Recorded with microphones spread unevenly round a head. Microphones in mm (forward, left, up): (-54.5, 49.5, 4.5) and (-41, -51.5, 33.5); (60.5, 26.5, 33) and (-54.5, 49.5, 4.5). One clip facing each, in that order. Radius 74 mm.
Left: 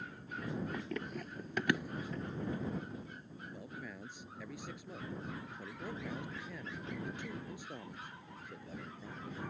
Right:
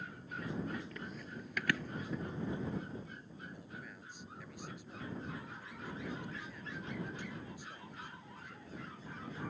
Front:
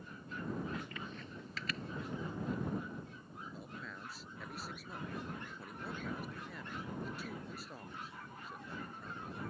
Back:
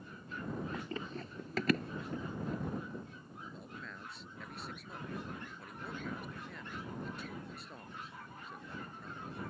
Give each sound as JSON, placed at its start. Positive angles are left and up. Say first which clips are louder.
{"t": 0.7, "sound": "running footsteps", "louder": "left 4 dB, back 4 dB", "azimuth_deg": 100}
{"t": 3.5, "sound": "a man speaking", "louder": "left 3 dB, front 2 dB", "azimuth_deg": 75}